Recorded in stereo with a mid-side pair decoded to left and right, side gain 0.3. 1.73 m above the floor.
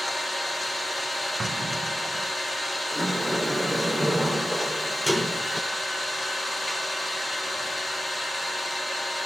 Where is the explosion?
35° right, 2 m.